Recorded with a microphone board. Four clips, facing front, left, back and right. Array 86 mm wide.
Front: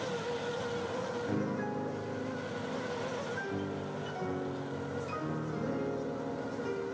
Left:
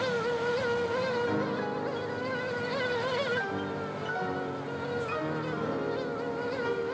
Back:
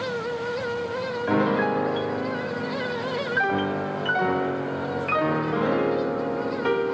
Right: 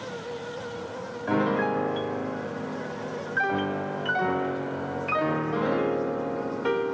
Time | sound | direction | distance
1.3 | a piano | 150° right | ?